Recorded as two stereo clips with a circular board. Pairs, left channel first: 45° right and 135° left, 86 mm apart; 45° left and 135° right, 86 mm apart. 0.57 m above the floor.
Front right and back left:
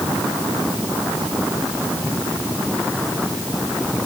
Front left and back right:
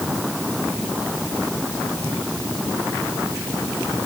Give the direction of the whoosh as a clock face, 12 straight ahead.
No whoosh in this recording.